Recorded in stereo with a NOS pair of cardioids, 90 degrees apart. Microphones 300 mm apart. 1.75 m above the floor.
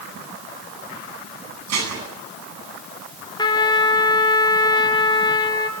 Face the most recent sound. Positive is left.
turn(degrees=15)